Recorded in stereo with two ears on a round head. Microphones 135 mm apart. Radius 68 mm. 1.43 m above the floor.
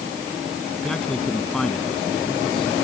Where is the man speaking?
5° left (ahead or behind).